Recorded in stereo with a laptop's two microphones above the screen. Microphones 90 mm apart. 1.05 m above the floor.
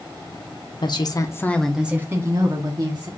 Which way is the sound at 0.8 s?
55° left (ahead or behind).